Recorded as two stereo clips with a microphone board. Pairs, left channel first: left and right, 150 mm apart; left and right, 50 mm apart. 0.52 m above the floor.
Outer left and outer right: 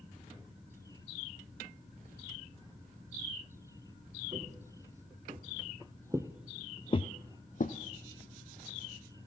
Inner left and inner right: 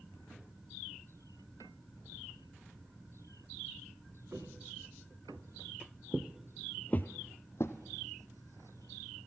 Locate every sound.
4.3 s footsteps: 45° right (ahead or behind), 2.5 m; by 7.8 s 60° left (ahead or behind), 1.2 m